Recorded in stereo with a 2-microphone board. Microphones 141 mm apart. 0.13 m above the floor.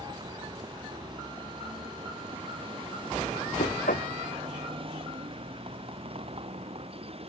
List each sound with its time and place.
0.0 s a vehicle: 35° right (ahead or behind); by 7.3 s 45° right (ahead or behind)
3.6 s knocking: 75° left (ahead or behind)